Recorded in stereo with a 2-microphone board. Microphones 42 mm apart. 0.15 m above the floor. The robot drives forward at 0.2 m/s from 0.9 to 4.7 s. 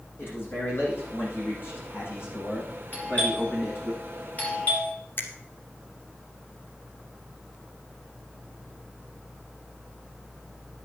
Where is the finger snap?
55° left (ahead or behind), 1.8 m.